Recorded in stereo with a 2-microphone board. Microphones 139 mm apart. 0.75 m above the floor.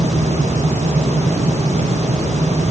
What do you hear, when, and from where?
Only background noise.